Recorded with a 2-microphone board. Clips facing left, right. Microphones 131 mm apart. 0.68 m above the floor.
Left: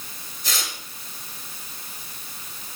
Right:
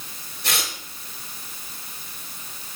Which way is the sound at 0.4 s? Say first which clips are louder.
Right 3 dB; 70° right (ahead or behind).